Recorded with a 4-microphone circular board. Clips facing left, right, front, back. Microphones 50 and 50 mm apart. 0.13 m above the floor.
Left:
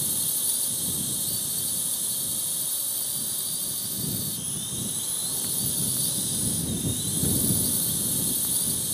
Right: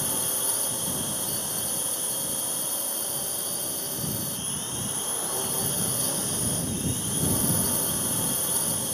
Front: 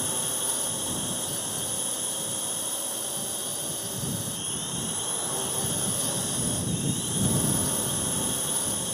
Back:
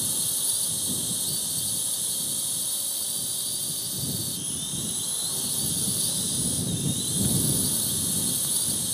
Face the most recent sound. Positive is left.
turn(degrees=-50)